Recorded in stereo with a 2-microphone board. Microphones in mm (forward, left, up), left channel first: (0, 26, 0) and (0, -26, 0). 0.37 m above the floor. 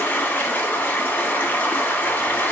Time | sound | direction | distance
0.0 | running water | 35° left (ahead or behind) | 1.0 m